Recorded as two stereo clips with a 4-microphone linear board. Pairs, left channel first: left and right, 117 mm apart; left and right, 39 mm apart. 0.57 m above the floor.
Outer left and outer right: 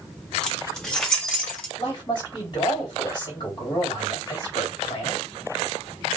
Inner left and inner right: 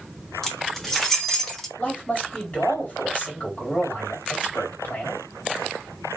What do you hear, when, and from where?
0.4 s keys jangling: 5° left (ahead or behind), 1.3 m
1.8 s a man speaking: 40° left (ahead or behind), 2.5 m